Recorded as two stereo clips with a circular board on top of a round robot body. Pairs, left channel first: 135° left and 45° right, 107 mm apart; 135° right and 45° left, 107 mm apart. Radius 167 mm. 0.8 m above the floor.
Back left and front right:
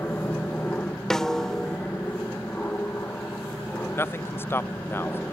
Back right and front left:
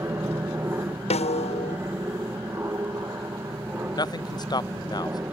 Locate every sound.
0.0 s an aircraft: 80° left
1.1 s a snare drum: 140° right
3.9 s a man speaking: 165° right